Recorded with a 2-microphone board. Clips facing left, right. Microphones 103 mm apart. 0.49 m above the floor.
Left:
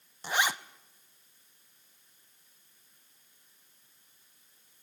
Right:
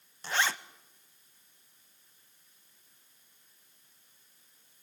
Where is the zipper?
15° left (ahead or behind), 0.7 m.